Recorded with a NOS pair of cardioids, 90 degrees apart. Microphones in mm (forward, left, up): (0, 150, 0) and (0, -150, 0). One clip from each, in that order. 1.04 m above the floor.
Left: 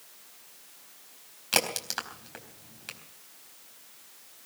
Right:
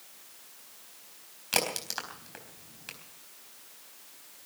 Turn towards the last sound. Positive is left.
turn(degrees=15)